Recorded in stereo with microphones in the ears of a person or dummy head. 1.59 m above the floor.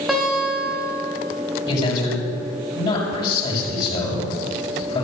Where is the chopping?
No chopping in this recording.